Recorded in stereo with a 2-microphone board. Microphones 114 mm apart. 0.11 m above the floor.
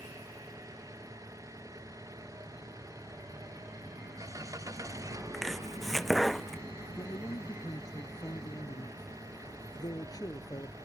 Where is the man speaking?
35° left (ahead or behind).